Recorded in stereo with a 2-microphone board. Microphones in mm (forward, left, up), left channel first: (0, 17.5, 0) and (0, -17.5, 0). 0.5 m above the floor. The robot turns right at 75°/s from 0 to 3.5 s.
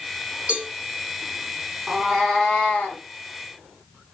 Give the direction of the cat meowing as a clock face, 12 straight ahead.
1 o'clock.